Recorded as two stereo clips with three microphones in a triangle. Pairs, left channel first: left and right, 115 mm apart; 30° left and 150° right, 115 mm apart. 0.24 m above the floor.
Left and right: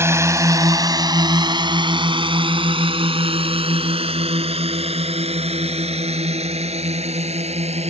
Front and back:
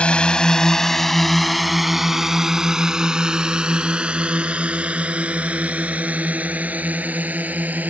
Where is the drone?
40° right; by 7.9 s 75° right.